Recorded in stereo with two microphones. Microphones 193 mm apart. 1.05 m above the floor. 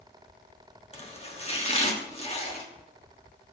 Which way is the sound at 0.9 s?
30° left (ahead or behind).